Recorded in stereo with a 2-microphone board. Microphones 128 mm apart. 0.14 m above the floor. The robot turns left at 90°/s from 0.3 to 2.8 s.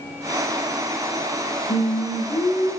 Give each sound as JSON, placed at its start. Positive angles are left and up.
{"t": 1.7, "sound": "singing", "azimuth_deg": 90, "distance_m": 5.5}